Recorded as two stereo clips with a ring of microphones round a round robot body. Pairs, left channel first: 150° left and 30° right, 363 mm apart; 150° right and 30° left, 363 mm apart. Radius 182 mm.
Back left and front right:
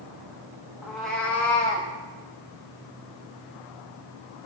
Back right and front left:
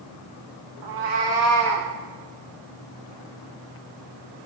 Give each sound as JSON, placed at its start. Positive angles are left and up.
{"t": 0.8, "sound": "a cat meowing", "azimuth_deg": 55, "distance_m": 3.5}